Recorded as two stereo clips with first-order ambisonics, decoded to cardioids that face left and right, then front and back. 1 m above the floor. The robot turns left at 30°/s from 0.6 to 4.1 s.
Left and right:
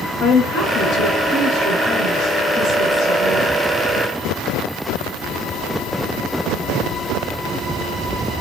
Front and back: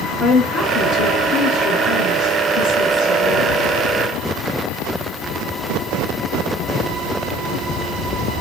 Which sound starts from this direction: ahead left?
A woman speaking, at 0.2 s.